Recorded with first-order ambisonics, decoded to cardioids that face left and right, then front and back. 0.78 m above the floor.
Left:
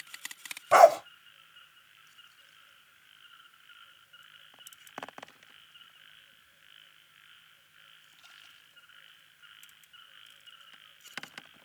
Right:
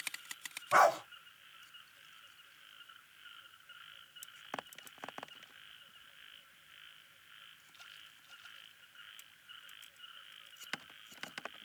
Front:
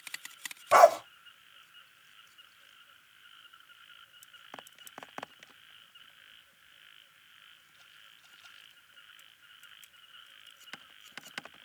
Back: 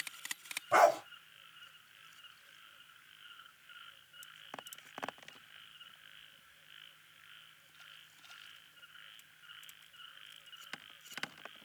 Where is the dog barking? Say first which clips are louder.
Left 9 dB, front 7 dB; 60° left, 1.3 m.